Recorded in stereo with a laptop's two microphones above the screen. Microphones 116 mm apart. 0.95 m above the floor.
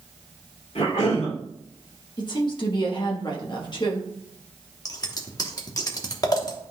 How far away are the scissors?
About 0.9 m.